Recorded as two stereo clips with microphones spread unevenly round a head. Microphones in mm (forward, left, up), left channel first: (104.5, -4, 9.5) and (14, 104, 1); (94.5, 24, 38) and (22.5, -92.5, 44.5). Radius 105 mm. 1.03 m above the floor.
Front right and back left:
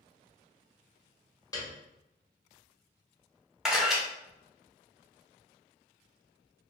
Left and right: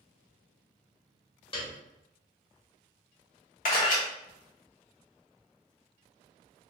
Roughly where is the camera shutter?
Ahead left.